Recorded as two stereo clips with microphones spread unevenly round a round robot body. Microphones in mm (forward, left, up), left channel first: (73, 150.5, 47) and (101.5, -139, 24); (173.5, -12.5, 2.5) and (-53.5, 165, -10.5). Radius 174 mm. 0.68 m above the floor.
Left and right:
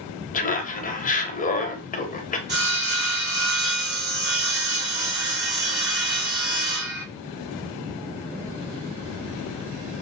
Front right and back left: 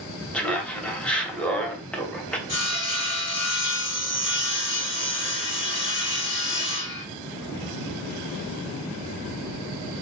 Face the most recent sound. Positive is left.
turn(degrees=-70)